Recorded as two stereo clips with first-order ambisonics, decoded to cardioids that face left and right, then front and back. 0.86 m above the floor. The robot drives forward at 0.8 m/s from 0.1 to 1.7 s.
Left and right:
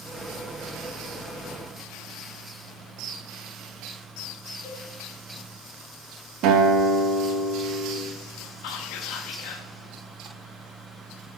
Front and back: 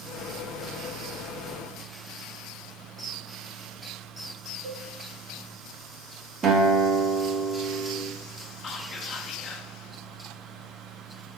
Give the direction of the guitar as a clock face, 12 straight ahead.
4 o'clock.